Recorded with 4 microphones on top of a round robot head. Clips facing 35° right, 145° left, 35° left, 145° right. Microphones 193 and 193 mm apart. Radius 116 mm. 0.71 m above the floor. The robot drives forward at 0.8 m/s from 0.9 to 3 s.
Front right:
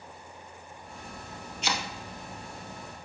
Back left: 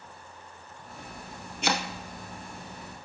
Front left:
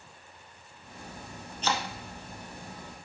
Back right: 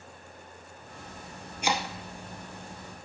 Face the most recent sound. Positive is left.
turn(degrees=170)